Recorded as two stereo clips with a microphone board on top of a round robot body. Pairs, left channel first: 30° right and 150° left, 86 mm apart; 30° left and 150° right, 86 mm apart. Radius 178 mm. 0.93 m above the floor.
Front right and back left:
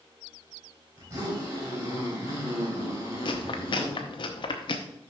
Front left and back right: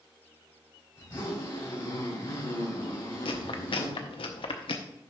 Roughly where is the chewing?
Ahead.